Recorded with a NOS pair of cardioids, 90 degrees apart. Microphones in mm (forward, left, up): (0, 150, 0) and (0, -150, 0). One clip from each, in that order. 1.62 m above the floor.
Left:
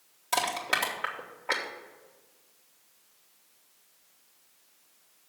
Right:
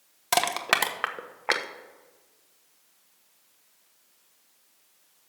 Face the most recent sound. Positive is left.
turn(degrees=-65)